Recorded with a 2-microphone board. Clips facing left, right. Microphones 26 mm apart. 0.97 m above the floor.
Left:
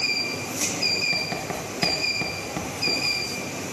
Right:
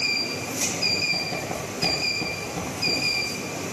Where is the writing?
60° left (ahead or behind), 7 m.